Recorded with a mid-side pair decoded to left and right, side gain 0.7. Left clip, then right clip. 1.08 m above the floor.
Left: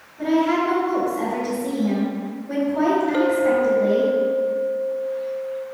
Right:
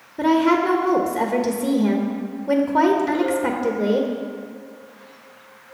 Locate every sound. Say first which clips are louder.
0.2 s a woman speaking: right 2 dB; 60° right, 1.0 m
3.1 s a clink: left 4 dB; 50° left, 2.5 m